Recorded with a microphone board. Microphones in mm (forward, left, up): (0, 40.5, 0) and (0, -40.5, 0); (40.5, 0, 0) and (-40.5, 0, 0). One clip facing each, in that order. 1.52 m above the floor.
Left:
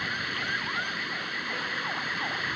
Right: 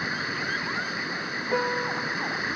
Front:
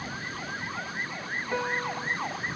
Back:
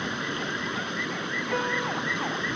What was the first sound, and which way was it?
Running water, 165° right.